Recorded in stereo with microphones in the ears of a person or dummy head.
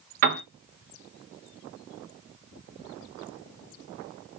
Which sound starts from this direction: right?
A piano, at 0.2 s.